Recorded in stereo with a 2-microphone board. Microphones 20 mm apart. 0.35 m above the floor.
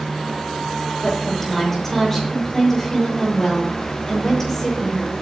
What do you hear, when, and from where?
1.0 s a woman speaking: 15° left (ahead or behind), 8.5 m